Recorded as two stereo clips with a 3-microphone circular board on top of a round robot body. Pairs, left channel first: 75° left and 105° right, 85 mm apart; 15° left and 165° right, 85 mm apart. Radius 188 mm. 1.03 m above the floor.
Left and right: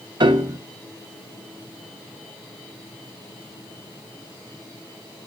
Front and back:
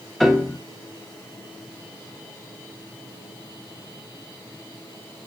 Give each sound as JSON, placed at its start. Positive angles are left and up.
{"t": 0.2, "sound": "a piano", "azimuth_deg": -70, "distance_m": 1.6}